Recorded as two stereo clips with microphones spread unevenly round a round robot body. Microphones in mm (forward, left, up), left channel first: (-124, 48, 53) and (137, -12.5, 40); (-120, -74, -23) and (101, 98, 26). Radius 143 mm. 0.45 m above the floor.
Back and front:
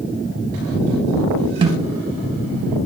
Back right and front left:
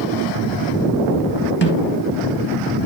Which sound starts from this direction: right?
A snare drum, at 1.6 s.